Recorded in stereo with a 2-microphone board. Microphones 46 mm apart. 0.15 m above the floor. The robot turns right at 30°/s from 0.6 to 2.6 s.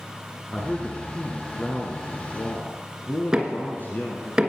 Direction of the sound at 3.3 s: 15° right (ahead or behind).